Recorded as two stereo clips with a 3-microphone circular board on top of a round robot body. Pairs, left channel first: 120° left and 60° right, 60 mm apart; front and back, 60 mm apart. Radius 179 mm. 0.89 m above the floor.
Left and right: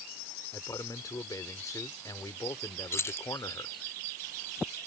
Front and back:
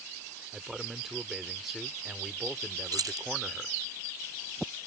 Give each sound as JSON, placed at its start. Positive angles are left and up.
{"t": 0.5, "sound": "a man speaking", "azimuth_deg": 95}
{"t": 2.9, "sound": "keys jangling", "azimuth_deg": 165}